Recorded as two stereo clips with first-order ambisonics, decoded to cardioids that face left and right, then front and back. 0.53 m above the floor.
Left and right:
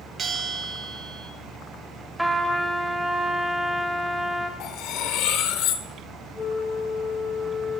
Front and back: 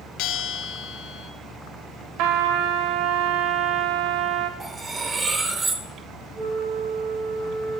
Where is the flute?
175° left, 4.5 m.